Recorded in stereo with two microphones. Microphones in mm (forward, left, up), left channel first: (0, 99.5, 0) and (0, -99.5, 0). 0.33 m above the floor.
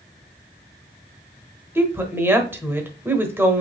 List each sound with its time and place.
1.8 s a woman speaking: 10° right (ahead or behind), 1.0 m